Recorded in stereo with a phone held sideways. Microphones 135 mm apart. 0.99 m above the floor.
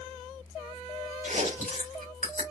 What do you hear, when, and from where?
1.2 s chewing: 85° right, 3 m